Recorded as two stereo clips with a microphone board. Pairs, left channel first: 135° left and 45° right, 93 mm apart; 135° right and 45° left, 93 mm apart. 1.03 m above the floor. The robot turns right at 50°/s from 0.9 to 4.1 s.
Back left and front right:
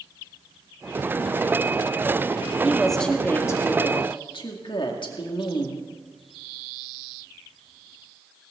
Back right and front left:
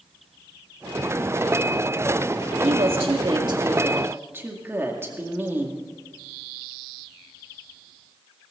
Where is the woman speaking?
35° left, 2 m; by 5.8 s 110° left, 2 m.